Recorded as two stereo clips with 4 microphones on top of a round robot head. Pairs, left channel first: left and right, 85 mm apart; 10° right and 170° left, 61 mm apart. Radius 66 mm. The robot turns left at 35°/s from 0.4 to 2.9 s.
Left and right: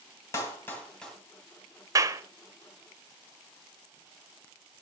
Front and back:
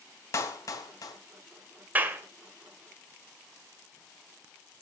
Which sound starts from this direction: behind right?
A clap, at 1.9 s.